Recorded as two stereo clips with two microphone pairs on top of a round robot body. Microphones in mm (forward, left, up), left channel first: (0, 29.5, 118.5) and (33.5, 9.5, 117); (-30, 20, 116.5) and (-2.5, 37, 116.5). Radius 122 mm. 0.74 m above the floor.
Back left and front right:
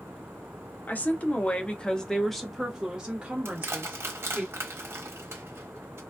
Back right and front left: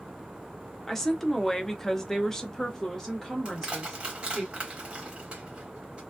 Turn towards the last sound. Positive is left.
turn(degrees=-30)